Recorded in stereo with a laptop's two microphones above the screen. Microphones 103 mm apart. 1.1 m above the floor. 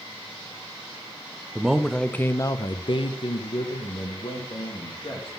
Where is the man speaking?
5° right (ahead or behind), 0.6 m; by 5.3 s 55° left (ahead or behind), 1.6 m.